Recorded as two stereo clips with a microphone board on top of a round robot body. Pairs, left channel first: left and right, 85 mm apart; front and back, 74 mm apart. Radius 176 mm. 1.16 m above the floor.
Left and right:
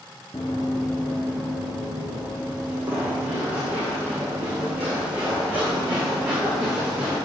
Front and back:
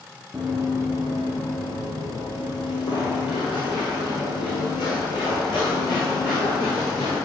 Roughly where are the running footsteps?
Left.